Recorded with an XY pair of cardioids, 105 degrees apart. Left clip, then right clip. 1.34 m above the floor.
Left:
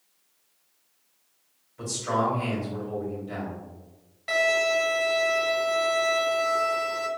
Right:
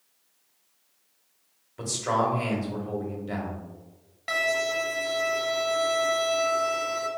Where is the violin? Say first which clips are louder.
Left 3 dB; 25° right, 1.4 m.